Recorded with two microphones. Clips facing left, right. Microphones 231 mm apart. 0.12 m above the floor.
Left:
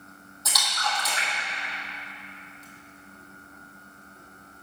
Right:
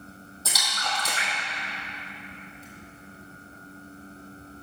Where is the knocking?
I don't hear knocking.